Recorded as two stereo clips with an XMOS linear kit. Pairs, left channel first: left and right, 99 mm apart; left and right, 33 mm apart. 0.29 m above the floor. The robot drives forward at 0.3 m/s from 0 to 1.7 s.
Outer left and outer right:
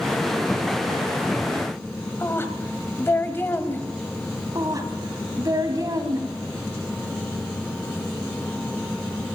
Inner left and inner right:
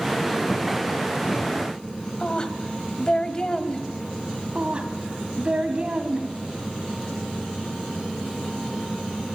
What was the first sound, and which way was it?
A woman speaking, 25° left (ahead or behind).